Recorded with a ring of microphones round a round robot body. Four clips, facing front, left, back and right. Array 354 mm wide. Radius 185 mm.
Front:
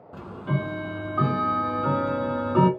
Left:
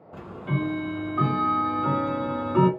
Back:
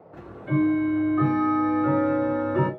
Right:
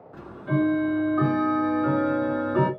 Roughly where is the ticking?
Ahead left.